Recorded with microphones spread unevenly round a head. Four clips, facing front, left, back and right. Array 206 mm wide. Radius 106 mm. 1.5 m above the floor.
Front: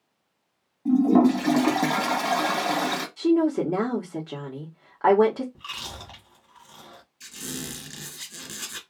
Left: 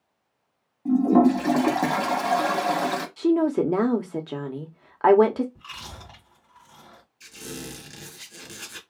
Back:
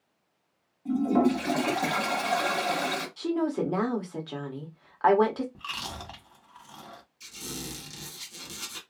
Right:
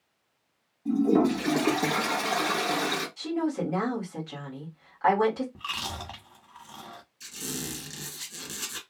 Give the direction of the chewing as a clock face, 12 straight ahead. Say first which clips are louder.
Right 6 dB, back 1 dB; 3 o'clock.